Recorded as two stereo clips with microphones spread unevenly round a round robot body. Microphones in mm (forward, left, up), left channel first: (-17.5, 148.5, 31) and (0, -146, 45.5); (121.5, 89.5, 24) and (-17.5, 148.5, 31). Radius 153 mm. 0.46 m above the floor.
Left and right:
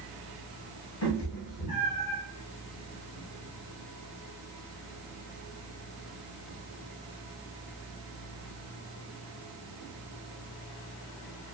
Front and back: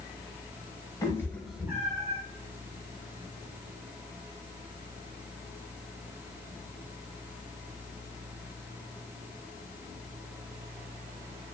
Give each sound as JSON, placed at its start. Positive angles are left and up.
{"t": 1.0, "sound": "a cat meowing", "azimuth_deg": 45, "distance_m": 1.0}